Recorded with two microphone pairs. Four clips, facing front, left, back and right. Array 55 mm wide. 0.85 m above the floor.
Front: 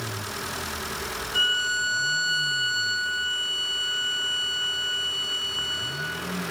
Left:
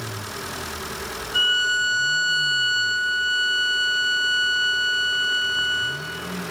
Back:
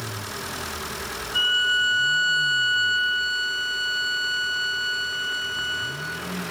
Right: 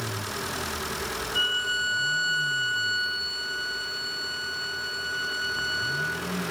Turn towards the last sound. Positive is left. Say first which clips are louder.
# left 7 dB, back 3 dB
turn(degrees=130)